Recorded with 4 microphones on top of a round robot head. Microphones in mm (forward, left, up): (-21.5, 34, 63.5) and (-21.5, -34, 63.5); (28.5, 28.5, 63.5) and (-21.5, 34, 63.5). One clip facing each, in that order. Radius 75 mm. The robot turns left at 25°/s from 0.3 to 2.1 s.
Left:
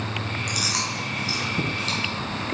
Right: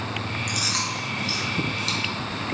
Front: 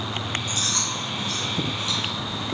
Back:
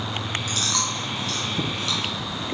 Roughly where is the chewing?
Behind.